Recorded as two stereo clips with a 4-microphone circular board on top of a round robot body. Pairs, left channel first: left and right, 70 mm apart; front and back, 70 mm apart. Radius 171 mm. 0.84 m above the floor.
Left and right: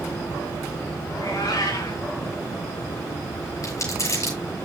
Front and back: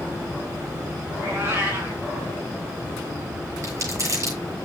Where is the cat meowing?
120° left, 3 m.